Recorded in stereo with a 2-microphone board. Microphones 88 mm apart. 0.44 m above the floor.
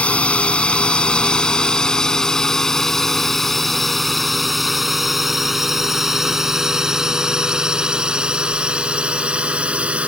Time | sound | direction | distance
0.0 | a drone | 15° left (ahead or behind) | ?